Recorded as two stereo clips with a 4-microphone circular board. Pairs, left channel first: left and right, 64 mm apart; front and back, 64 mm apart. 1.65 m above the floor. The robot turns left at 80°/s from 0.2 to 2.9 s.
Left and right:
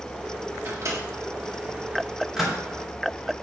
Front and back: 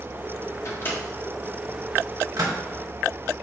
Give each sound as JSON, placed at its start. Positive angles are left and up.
{"t": 0.7, "sound": "a microwave", "azimuth_deg": -35, "distance_m": 1.7}